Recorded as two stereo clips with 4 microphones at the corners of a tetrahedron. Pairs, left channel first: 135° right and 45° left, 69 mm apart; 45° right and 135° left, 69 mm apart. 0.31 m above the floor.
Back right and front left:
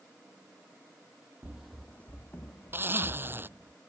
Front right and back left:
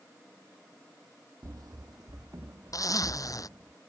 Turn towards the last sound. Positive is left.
turn(degrees=-10)